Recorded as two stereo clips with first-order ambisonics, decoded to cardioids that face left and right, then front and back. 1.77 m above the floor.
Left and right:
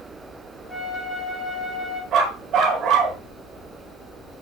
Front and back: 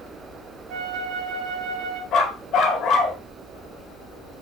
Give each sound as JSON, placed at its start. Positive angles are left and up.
{"t": 0.7, "sound": "a flute", "azimuth_deg": 180, "distance_m": 3.0}
{"t": 2.1, "sound": "a dog barking", "azimuth_deg": -40, "distance_m": 2.5}